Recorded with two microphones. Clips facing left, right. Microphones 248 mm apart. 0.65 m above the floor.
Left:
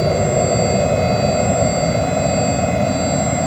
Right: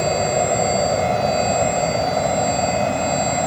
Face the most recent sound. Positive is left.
turn(degrees=20)  # may be behind; listen again after turning